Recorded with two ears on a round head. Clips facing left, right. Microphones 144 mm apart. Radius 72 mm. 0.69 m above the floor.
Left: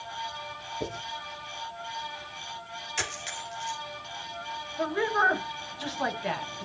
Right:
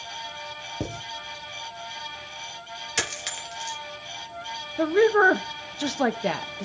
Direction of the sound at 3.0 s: 70° right (ahead or behind).